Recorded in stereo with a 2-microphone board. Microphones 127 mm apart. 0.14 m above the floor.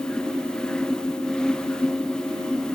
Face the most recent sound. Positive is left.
No sound to turn to.